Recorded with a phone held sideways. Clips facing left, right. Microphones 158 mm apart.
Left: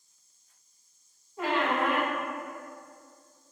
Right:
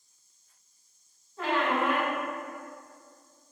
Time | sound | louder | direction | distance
1.4 | a squeak | even | 10° left (ahead or behind) | 1.0 m